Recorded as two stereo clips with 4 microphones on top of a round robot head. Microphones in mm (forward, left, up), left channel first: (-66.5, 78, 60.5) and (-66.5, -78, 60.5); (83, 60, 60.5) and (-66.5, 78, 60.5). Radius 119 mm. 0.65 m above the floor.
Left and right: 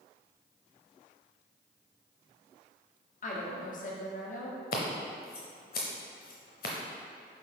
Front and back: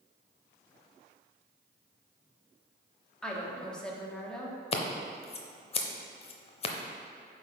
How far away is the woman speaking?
About 1.4 m.